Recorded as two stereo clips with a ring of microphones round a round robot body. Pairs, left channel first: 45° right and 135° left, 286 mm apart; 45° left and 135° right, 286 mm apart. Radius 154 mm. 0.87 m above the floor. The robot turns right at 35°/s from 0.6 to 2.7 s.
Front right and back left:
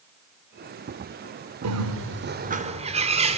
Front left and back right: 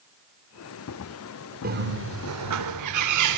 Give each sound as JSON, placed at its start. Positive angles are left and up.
{"t": 1.6, "sound": "a bird", "azimuth_deg": 165, "distance_m": 2.5}